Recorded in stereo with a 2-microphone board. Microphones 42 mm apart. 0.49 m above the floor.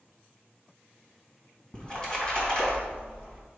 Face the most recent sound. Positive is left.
turn(degrees=25)  # may be behind; listen again after turning